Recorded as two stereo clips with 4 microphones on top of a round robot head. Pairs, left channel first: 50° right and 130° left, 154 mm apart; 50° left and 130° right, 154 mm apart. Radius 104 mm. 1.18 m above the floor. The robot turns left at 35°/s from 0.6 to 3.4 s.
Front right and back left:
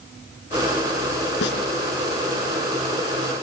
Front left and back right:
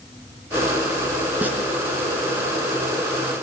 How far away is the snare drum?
About 4 m.